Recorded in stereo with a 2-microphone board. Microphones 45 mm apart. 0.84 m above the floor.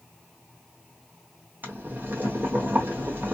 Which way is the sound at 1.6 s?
50° right (ahead or behind).